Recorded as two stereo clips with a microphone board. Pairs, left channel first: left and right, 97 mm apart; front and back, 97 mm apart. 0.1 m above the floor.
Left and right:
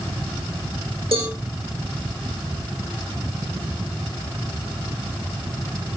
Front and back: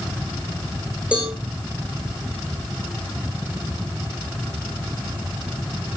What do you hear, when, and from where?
1.1 s a cowbell: 105° right, 7 m